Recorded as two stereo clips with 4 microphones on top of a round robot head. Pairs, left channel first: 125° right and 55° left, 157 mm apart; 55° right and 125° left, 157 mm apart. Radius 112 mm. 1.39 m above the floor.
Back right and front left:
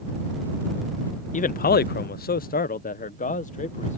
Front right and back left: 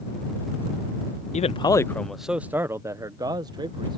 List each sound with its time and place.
1.3 s a man speaking: 95° right; by 4.0 s 170° right